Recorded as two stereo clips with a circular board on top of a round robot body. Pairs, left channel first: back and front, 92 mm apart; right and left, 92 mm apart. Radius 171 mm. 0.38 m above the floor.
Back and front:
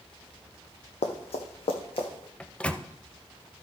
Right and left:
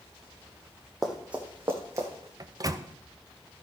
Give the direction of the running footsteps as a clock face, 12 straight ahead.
6 o'clock.